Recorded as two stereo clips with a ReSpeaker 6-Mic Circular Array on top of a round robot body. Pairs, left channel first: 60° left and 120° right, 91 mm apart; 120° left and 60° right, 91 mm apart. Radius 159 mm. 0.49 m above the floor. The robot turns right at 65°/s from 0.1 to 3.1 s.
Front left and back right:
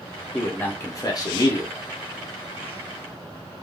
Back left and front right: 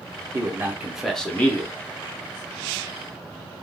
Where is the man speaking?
15° right, 1.0 m; by 1.7 s 75° left, 1.0 m.